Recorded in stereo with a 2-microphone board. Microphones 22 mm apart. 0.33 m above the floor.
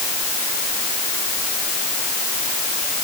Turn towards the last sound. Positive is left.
No sound to turn to.